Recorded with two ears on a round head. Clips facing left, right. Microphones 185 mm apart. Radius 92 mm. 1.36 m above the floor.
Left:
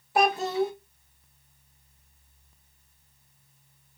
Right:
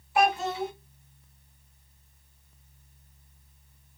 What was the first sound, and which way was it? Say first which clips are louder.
A child speaking: left 2 dB; 35° left (ahead or behind).